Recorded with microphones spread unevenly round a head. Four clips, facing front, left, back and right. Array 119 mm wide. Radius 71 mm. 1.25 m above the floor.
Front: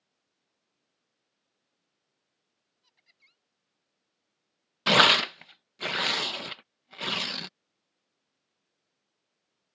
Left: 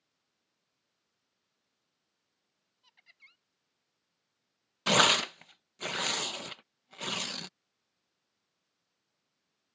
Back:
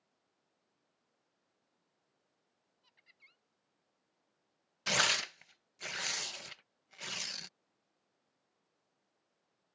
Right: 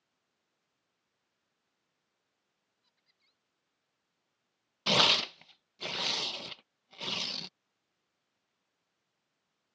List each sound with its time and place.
2.8 s laughter: 80° left
4.9 s tearing paper: 15° left